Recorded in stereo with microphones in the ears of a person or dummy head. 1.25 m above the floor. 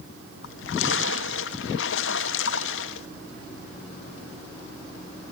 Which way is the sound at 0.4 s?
75° left (ahead or behind).